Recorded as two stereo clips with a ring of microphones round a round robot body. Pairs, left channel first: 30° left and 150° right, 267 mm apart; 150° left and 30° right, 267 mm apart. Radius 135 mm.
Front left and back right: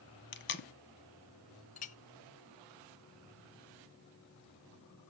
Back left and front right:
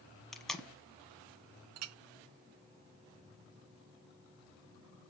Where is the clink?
30° right, 0.5 m.